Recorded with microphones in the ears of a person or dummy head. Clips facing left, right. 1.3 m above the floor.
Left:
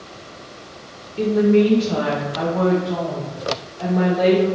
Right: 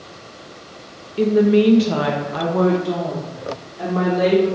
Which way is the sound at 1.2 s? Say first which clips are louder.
Right 1 dB; 15° right (ahead or behind).